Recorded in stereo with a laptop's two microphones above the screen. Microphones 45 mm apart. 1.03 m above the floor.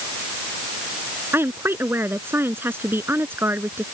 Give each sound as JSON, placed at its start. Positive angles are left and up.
{"t": 1.3, "sound": "a woman speaking", "side_deg": -55}